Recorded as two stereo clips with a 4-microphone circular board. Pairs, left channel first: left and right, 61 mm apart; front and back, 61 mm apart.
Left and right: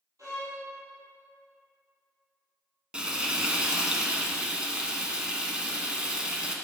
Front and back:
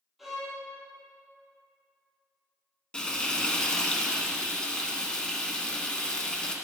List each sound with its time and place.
0.2 s a violin: 90° right, 3 m
2.9 s frying: 50° right, 1.0 m